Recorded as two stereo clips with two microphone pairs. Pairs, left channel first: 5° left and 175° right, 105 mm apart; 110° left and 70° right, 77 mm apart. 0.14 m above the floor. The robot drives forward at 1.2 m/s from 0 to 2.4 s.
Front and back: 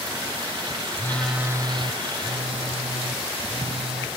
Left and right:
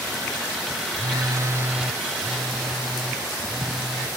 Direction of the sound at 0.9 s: 50° right.